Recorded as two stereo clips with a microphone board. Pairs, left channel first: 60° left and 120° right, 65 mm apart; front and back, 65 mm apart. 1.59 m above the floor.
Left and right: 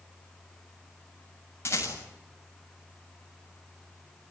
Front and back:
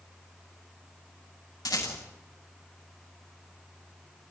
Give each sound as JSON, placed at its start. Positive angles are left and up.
{"t": 1.6, "sound": "a rattle", "azimuth_deg": 10, "distance_m": 7.5}